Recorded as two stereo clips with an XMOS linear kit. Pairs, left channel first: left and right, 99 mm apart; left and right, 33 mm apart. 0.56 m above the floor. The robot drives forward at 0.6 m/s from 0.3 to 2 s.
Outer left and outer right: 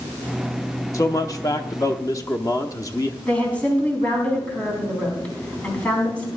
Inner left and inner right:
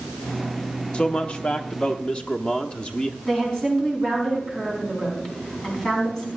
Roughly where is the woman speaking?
Centre.